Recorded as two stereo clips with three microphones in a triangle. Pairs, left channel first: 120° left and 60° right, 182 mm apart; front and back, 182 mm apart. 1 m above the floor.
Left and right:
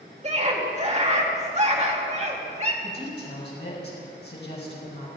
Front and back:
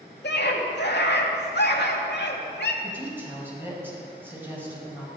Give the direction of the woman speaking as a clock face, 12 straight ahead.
9 o'clock.